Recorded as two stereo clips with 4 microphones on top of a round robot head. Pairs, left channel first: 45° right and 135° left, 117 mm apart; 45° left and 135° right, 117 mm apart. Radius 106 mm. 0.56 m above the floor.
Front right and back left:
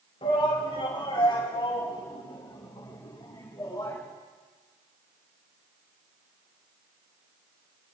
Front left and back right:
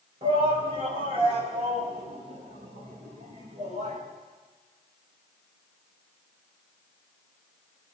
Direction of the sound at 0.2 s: 90° right.